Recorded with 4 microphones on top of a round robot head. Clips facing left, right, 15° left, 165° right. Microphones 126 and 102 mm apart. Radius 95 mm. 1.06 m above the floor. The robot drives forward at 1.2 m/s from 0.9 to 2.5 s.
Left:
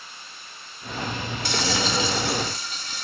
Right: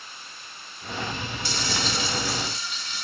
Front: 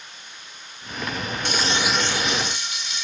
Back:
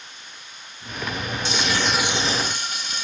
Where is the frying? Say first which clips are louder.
Left 5 dB, even; 50° left, 0.7 m; by 3.0 s 145° left, 1.0 m.